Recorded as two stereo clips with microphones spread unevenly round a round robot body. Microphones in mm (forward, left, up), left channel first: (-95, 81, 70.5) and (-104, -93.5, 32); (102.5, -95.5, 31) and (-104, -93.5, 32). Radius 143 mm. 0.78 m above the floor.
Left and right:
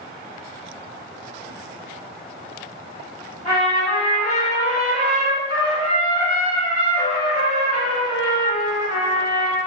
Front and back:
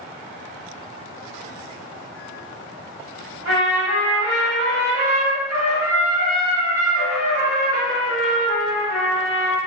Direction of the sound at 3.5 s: 135° left.